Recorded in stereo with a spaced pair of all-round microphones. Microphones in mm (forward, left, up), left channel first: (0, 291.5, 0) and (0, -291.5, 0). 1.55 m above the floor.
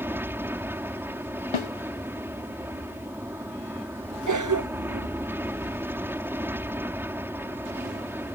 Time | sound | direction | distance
0.0 | an aircraft | 5° right (ahead or behind) | ?
1.5 | a snare drum | 55° left (ahead or behind) | ?
4.3 | a cough | 30° right (ahead or behind) | ?